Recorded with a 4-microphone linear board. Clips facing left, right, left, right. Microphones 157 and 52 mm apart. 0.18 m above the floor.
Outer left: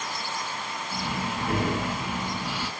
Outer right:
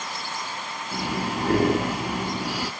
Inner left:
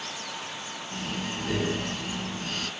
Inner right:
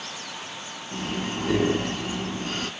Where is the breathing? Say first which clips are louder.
Outer right 4 dB, inner right 4 dB; 40° right (ahead or behind), 1.3 m.